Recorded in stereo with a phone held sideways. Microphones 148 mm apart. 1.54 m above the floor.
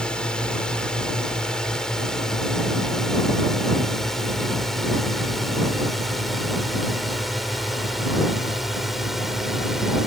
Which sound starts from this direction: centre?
A drone, at 0.0 s.